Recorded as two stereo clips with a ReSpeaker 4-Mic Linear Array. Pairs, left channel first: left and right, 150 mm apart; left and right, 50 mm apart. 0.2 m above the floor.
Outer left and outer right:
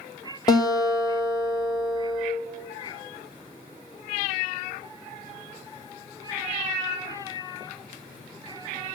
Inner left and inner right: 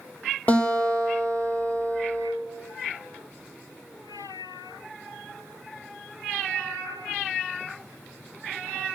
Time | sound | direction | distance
0.5 | a guitar | 25° left (ahead or behind) | 2.5 m